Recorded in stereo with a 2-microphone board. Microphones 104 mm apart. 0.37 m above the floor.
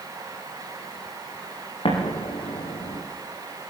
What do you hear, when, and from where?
1.9 s an explosion: 70° left (ahead or behind), 7 m